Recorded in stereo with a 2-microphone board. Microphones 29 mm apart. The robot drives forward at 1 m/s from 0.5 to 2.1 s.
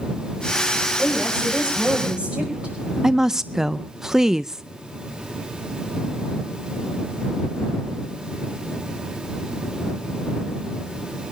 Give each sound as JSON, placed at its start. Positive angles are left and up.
{"t": 1.0, "sound": "a woman speaking", "side_deg": -40, "distance_m": 6.5}
{"t": 3.0, "sound": "a woman speaking", "side_deg": -15, "distance_m": 0.5}